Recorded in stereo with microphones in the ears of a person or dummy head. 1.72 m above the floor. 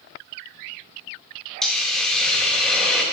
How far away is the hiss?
About 0.5 m.